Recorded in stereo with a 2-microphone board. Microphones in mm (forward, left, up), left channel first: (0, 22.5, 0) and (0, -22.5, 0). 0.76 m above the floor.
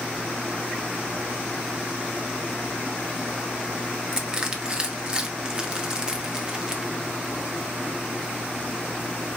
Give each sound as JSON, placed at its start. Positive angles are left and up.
{"t": 4.1, "sound": "crushing", "side_deg": -20, "distance_m": 0.6}